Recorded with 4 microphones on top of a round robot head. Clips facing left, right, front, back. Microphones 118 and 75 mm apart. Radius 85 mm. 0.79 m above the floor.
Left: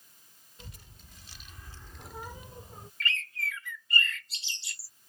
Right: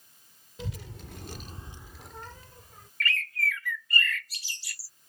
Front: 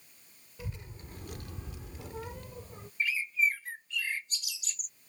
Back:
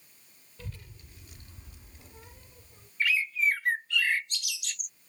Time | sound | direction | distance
0.6 | a child speaking | 80° right | ?
3.0 | a bird | 160° left | ?